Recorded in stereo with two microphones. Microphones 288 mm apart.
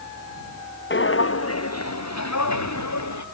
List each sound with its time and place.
0.9 s footsteps: 40° left (ahead or behind); by 3.2 s 75° left (ahead or behind)